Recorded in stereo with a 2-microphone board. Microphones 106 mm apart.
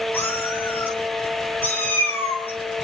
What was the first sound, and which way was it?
A cat meowing, 20° left (ahead or behind).